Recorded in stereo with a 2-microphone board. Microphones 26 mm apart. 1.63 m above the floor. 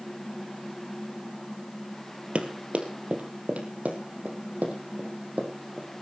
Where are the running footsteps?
55° right (ahead or behind), 2.5 m; by 5.9 s 75° right (ahead or behind), 5.5 m.